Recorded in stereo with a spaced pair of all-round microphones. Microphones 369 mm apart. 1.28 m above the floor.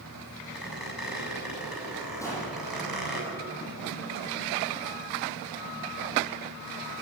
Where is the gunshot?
10° left (ahead or behind), 8.5 m.